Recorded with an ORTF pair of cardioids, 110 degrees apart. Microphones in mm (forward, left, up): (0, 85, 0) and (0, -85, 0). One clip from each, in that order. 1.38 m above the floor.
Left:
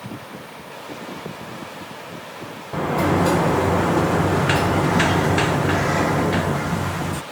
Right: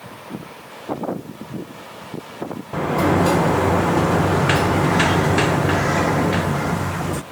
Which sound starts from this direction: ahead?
A sliding door, at 2.7 s.